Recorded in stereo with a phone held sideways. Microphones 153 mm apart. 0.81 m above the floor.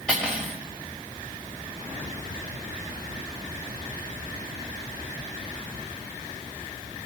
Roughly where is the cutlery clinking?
Centre.